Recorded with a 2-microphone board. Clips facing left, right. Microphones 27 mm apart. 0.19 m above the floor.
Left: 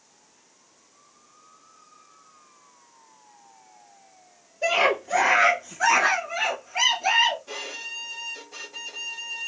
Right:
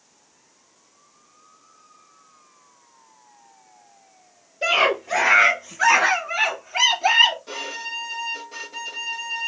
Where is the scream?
65° right (ahead or behind), 2.5 m; by 7.4 s 40° right (ahead or behind), 1.2 m.